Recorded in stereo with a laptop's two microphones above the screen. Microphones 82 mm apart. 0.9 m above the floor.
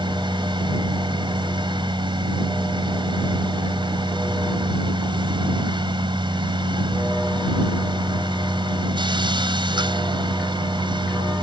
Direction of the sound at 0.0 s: 75° right (ahead or behind).